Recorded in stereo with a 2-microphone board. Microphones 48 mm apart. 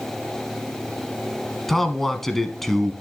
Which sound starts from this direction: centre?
A man speaking, at 1.7 s.